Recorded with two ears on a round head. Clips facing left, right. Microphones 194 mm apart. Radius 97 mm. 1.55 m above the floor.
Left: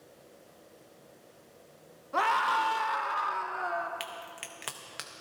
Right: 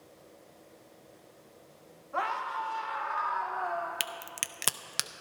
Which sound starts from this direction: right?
A crack, at 4.0 s.